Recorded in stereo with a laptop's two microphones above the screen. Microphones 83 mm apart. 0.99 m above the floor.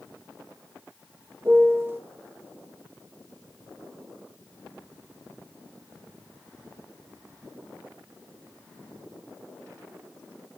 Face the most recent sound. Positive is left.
turn(degrees=-30)  # may be behind; listen again after turning